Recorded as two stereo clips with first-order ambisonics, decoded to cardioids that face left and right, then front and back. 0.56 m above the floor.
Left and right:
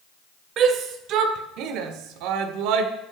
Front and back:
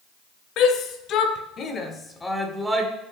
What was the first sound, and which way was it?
A shout, 40° right.